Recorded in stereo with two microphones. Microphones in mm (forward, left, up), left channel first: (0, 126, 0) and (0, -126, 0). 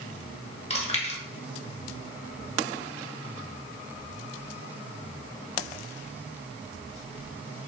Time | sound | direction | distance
0.7 | chewing | 25° left (ahead or behind) | 1.0 m